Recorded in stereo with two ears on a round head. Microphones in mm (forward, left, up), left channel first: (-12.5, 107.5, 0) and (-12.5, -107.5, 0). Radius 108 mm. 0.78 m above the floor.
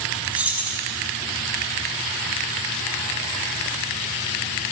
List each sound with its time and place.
0.3 s keys jangling: 5° right (ahead or behind), 0.9 m